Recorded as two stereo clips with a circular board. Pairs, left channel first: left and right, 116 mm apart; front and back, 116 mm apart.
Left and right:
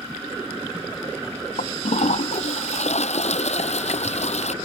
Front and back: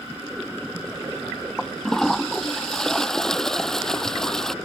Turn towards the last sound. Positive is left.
turn(degrees=85)